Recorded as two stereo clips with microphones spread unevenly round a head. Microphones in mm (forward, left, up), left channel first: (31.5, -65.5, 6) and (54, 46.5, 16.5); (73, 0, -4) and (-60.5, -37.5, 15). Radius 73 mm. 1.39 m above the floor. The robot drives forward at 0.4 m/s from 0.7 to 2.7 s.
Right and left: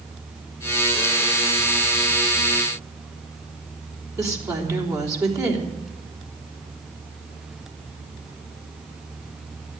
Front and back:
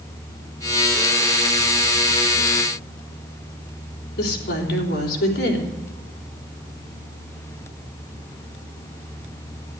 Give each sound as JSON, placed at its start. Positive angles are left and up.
{"t": 4.2, "sound": "a woman speaking", "azimuth_deg": 20, "distance_m": 3.5}